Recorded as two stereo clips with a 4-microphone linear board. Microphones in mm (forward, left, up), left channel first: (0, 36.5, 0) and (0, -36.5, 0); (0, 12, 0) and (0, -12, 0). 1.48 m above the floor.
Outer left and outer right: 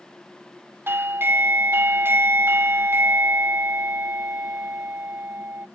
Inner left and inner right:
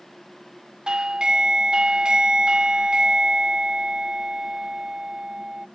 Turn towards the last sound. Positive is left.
turn(degrees=-30)  # may be behind; listen again after turning